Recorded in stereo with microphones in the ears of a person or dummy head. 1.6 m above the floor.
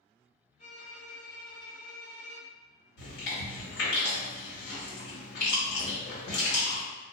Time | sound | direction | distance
0.6 | a violin | 35° left (ahead or behind) | 1.0 m
3.0 | chewing | 70° left (ahead or behind) | 1.6 m